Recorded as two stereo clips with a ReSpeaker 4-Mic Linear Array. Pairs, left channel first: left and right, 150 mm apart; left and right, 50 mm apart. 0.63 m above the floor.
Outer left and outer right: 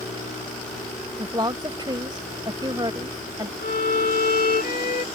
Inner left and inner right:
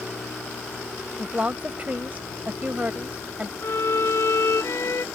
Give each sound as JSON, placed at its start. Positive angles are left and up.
{"t": 1.2, "sound": "a woman speaking", "side_deg": -30}
{"t": 3.6, "sound": "a violin", "side_deg": 80}